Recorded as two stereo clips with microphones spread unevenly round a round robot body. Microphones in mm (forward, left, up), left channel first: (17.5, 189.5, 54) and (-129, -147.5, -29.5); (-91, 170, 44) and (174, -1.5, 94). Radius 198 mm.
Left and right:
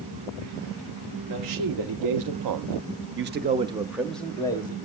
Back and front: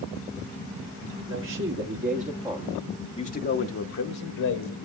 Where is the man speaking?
85° right, 1.7 m; by 4.8 s 150° left, 1.5 m.